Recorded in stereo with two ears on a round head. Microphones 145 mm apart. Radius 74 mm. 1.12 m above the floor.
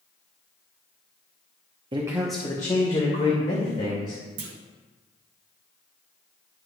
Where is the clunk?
65° right (ahead or behind), 0.8 m.